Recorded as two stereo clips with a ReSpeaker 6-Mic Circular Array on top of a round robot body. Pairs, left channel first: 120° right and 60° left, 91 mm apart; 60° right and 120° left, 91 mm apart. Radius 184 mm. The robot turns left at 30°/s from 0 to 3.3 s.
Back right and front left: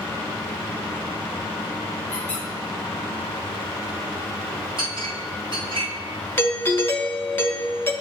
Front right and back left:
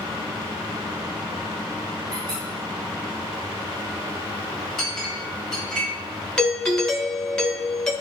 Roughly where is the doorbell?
Behind right.